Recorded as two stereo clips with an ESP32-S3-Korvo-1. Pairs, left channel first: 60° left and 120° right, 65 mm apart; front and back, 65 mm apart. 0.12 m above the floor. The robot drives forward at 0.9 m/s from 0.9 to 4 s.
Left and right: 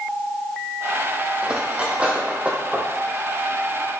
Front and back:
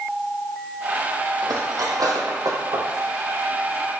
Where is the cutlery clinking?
170° left, 2.5 m; by 2.9 s 175° left, 3.5 m.